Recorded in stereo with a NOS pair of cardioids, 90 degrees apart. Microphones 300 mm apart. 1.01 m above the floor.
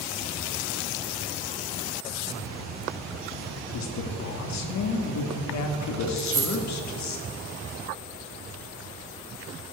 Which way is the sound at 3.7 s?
70° left.